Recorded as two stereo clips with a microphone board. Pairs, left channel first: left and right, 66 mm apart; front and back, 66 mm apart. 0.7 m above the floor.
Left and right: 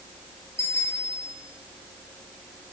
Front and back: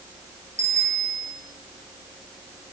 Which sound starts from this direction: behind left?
A bicycle bell, at 0.6 s.